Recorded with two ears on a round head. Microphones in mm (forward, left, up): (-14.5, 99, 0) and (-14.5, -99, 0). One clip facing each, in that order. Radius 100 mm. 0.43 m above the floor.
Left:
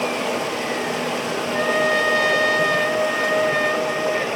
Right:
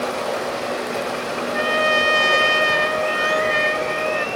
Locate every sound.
0.0 s running water: 85° left, 2 m
1.4 s a trumpet: 5° right (ahead or behind), 0.6 m